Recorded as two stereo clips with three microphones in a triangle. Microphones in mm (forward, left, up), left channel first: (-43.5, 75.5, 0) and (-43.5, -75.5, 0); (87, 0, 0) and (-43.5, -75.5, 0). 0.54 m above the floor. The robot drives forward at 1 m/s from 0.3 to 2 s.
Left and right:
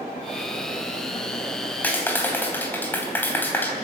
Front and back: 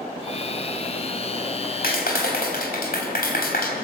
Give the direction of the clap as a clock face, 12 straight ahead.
12 o'clock.